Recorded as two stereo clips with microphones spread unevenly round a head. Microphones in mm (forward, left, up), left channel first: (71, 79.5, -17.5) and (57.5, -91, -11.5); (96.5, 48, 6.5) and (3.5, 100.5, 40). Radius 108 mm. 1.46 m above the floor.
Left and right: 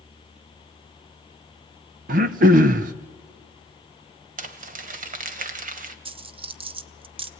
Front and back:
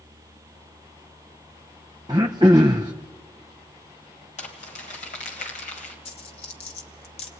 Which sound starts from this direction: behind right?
Throat clearing, at 2.1 s.